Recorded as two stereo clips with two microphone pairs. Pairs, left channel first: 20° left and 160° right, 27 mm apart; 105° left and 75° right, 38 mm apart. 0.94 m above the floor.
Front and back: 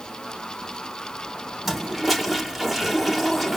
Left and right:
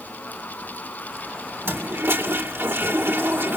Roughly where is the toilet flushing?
Right.